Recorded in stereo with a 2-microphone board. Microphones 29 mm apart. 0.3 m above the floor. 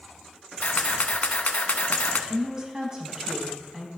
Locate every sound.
0.6 s a camera shutter: 60° left (ahead or behind), 0.7 m
2.3 s a woman speaking: 25° right (ahead or behind), 2.5 m